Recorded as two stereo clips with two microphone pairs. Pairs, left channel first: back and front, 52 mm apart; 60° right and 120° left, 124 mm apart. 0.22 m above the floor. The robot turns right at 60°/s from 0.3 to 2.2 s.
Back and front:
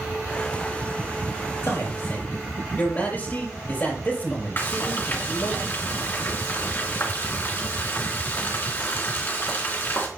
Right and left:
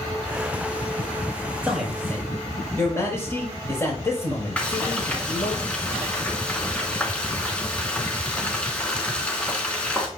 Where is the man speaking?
165° right, 7 m; by 5.6 s 130° right, 7 m.